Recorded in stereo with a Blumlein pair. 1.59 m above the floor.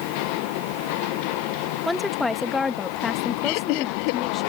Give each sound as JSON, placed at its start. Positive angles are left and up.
{"t": 1.9, "sound": "a woman speaking", "azimuth_deg": 5}
{"t": 3.4, "sound": "laughter", "azimuth_deg": 45}